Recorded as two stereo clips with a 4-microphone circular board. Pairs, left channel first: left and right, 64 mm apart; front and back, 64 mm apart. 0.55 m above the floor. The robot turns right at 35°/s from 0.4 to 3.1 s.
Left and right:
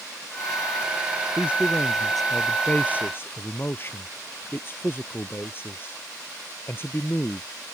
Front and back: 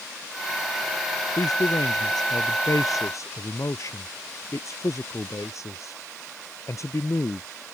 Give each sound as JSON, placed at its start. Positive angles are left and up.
{"t": 1.4, "sound": "a man speaking", "azimuth_deg": -25}